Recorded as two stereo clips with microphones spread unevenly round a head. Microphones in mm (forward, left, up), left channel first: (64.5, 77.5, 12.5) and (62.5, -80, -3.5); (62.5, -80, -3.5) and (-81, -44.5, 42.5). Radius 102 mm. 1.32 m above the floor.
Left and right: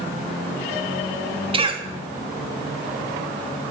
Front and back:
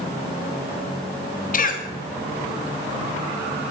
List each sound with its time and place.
1.5 s a cough: 35° right, 3 m